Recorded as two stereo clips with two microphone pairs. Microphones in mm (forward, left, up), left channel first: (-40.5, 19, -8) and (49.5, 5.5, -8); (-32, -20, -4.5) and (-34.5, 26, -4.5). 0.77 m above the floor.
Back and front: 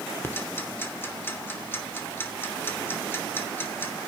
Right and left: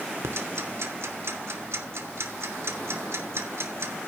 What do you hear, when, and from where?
0.2 s ticking: 105° left, 2.5 m